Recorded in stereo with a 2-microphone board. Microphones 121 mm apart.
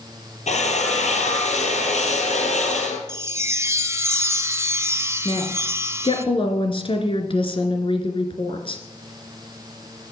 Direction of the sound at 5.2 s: 45° left (ahead or behind).